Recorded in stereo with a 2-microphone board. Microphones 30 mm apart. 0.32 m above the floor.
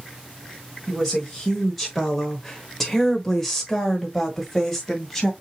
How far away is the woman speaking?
About 1.3 m.